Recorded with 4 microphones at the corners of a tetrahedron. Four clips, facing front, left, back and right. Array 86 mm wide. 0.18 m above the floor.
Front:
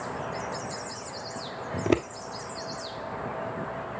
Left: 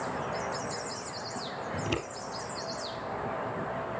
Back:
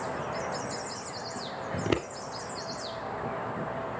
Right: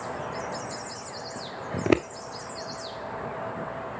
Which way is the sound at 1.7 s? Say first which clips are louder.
Right 11 dB, front 4 dB; 75° right.